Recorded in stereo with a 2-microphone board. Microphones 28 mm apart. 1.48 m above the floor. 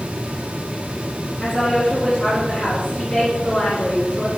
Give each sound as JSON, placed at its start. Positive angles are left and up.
{"t": 1.4, "sound": "a woman speaking", "side_deg": 65, "distance_m": 4.5}